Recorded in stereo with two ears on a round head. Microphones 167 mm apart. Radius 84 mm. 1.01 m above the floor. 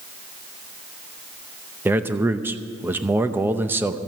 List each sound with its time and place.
1.9 s a man speaking: 10° right (ahead or behind), 0.7 m